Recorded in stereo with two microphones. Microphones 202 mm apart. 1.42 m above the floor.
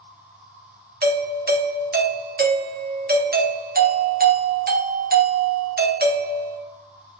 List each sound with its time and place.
0.0 s an insect: 5° right (ahead or behind), 0.9 m
1.0 s a doorbell: 50° right (ahead or behind), 0.7 m